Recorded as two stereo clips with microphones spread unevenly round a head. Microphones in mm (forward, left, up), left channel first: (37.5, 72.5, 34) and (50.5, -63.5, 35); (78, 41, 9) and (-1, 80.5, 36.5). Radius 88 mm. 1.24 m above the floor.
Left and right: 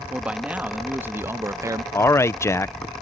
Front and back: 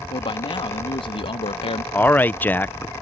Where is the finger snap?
I don't hear a finger snap.